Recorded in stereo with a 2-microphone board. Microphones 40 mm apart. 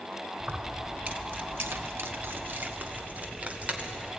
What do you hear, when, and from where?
0.4 s keys jangling: 30° right (ahead or behind), 1.9 m